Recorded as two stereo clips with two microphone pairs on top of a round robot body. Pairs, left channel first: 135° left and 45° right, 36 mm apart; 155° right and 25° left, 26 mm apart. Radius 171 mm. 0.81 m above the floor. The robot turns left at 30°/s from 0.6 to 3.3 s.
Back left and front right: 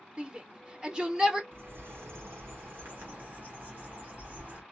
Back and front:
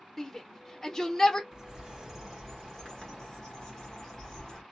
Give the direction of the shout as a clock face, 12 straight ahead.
2 o'clock.